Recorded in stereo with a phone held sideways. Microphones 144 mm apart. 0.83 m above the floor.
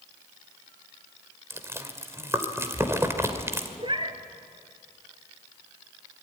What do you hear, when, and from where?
1.5 s chewing: 20° right (ahead or behind), 2 m
3.8 s a cat meowing: 40° right (ahead or behind), 1.8 m